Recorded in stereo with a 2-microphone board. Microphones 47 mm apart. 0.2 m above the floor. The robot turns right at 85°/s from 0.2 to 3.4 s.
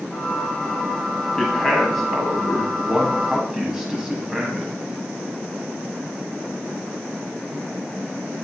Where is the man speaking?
15° left (ahead or behind), 1.1 m; by 4.8 s 15° right (ahead or behind), 1.1 m.